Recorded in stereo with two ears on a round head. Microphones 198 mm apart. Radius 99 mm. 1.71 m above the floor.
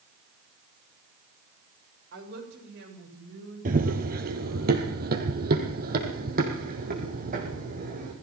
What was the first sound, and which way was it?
A woman speaking, 50° right (ahead or behind).